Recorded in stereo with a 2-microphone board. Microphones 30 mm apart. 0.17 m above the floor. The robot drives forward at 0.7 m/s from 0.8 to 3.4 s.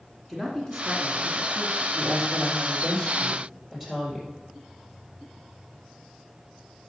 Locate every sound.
0.3 s a man speaking: 15° left (ahead or behind), 1.9 m; by 1.8 s 20° left (ahead or behind), 1.5 m
1.9 s a woman speaking: 10° left (ahead or behind), 3.5 m